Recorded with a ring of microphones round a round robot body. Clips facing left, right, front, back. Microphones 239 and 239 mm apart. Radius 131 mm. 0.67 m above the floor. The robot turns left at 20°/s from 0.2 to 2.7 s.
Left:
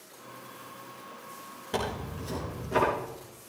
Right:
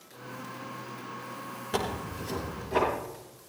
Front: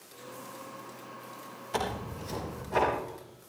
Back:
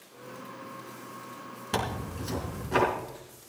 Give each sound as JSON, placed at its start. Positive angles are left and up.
{"t": 1.7, "sound": "tearing paper", "azimuth_deg": -175, "distance_m": 4.5}